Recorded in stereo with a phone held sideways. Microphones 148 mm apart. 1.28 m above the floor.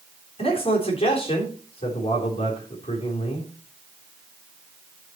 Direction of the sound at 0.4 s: 40° left (ahead or behind).